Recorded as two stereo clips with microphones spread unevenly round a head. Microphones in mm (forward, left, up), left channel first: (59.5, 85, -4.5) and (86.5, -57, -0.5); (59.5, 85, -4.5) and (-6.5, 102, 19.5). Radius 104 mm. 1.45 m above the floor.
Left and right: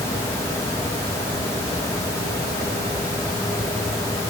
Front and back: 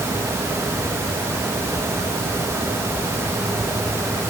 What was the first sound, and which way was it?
Only background noise.